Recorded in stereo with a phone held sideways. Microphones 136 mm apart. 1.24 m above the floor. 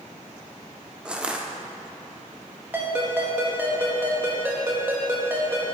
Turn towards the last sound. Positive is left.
turn(degrees=-15)  # may be behind; listen again after turning